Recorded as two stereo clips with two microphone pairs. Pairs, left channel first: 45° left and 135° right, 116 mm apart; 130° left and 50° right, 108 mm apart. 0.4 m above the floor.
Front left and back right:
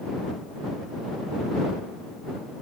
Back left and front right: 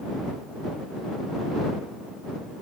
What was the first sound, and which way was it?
Only background noise.